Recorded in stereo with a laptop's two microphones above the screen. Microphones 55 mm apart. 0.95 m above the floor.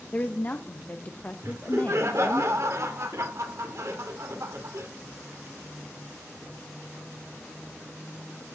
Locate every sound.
0.1 s a woman speaking: 30° left (ahead or behind), 0.8 m
1.4 s laughter: 60° right (ahead or behind), 3 m